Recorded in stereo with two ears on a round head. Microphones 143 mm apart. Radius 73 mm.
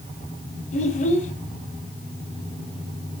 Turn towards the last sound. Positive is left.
turn(degrees=50)  # may be behind; listen again after turning